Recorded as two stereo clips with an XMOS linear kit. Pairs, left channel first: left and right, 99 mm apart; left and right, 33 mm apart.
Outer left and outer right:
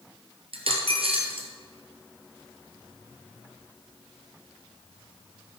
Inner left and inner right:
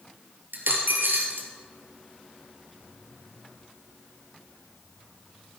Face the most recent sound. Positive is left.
turn(degrees=-70)  # may be behind; listen again after turning